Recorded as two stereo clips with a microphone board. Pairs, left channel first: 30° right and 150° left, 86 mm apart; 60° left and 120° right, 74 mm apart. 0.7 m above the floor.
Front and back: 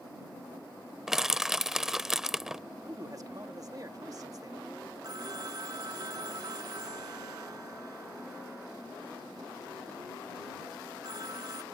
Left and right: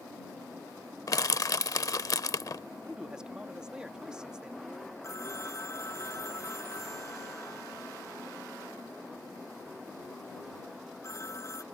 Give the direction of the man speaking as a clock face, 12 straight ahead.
6 o'clock.